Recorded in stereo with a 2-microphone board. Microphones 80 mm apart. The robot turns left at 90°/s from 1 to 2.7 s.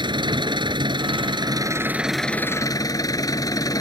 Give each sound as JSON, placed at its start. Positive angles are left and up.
{"t": 0.0, "sound": "an engine running", "azimuth_deg": -75}